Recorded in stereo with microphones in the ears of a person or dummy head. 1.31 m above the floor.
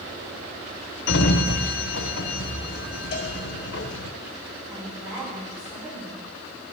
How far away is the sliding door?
About 0.8 m.